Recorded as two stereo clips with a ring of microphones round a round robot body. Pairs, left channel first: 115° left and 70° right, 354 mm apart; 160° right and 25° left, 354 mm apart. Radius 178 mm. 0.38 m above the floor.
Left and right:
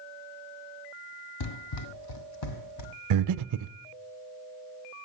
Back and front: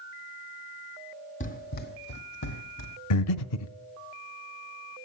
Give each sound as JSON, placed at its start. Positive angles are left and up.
{"t": 1.4, "sound": "running footsteps", "azimuth_deg": 135, "distance_m": 0.7}
{"t": 3.1, "sound": "breathing", "azimuth_deg": -110, "distance_m": 0.5}